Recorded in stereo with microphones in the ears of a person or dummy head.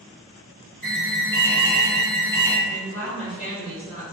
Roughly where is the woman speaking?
Left.